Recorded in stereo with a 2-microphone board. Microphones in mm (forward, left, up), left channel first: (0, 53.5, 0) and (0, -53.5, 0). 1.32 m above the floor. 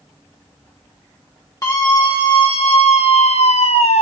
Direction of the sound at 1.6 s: 30° left (ahead or behind).